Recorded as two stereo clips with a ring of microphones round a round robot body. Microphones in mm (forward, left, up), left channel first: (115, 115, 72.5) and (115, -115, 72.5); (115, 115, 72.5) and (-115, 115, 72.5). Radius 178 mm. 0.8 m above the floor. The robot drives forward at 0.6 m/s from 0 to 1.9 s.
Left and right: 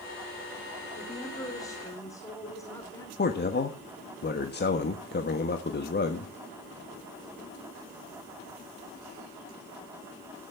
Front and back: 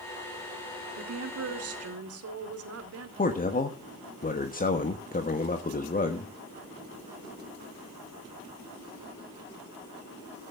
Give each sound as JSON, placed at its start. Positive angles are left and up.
{"t": 1.0, "sound": "a woman speaking", "azimuth_deg": 165, "distance_m": 1.8}
{"t": 3.2, "sound": "a man speaking", "azimuth_deg": 50, "distance_m": 1.4}